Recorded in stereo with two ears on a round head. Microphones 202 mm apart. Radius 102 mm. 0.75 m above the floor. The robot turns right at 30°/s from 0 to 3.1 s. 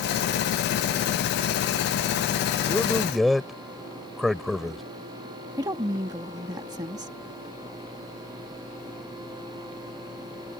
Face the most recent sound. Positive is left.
turn(degrees=-20)  # may be behind; listen again after turning